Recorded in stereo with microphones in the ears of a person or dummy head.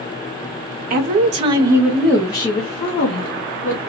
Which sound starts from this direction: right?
A woman speaking, at 0.9 s.